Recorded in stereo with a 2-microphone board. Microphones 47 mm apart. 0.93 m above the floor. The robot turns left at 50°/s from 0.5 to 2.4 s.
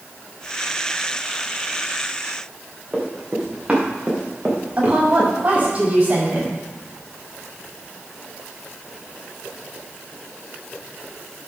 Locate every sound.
2.9 s running footsteps: 5° right (ahead or behind), 6 m; by 5.7 s 30° right (ahead or behind), 5.5 m
4.8 s a woman speaking: 30° right (ahead or behind), 6 m